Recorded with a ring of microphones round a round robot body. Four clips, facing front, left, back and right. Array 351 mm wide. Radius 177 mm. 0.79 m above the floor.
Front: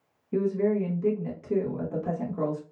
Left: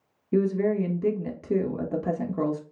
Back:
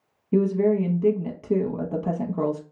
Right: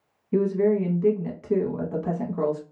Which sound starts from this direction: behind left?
A woman speaking, at 0.3 s.